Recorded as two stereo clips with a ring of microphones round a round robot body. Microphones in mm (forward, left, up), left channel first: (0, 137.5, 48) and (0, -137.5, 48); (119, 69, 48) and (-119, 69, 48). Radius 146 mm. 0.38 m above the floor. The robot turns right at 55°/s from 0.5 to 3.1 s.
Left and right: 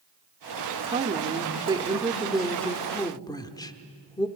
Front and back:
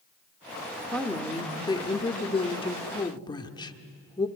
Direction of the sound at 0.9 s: 85° right.